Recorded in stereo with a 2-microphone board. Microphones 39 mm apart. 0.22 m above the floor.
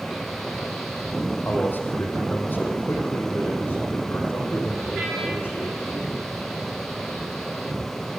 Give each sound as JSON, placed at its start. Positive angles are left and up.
{"t": 1.4, "sound": "a man speaking", "side_deg": 55, "distance_m": 7.0}